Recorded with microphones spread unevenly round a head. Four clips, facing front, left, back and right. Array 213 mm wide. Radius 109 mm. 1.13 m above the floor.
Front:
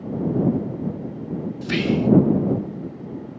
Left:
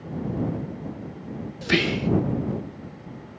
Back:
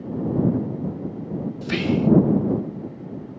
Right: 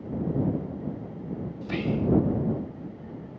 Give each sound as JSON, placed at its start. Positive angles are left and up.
{"t": 1.6, "sound": "whispering", "azimuth_deg": 100}